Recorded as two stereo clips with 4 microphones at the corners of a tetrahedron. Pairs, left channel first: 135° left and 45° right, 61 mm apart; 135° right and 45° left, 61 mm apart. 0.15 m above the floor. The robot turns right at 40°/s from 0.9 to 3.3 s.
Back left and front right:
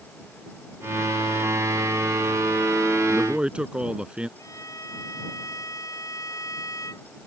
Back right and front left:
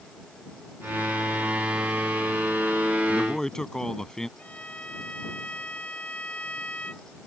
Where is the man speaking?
85° right; by 4.3 s 75° right.